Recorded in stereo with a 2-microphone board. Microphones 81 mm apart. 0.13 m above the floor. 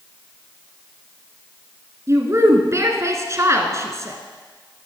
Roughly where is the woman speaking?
Right.